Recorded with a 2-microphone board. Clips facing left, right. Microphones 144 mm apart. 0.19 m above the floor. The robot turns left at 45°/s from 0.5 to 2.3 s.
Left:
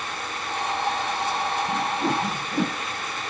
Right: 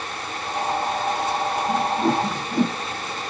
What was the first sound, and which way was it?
A whoosh, 10° left (ahead or behind).